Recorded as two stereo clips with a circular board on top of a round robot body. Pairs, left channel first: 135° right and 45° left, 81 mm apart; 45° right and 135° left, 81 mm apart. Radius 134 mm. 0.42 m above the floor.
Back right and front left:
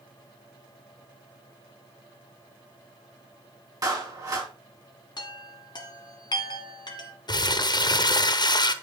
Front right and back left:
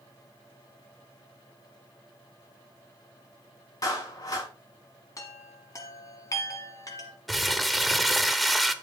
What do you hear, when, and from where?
3.8 s a clap: straight ahead, 4.5 m
5.2 s a chime: 95° right, 1.3 m
7.3 s crumpling: 135° right, 0.9 m